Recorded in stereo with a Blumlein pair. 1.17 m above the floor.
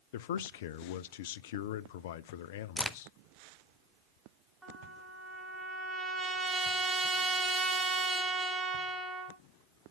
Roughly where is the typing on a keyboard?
No typing on a keyboard in this recording.